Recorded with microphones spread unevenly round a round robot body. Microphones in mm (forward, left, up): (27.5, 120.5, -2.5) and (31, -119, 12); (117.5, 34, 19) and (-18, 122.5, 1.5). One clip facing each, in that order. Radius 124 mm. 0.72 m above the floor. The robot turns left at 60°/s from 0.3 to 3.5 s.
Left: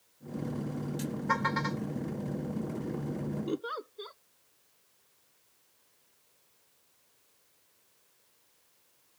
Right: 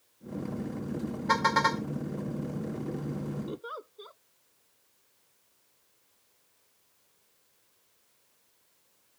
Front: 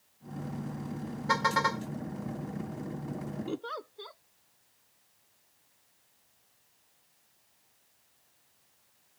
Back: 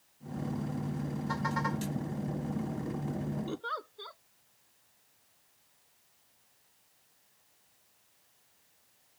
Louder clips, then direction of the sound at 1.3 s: Right 3 dB, front 6 dB; 55° right.